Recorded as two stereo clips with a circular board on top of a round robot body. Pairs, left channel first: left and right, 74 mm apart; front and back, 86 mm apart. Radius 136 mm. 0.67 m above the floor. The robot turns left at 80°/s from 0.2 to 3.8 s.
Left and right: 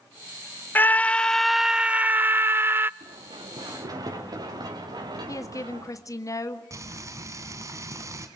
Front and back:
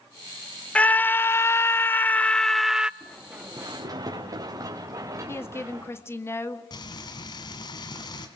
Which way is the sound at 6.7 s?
40° right.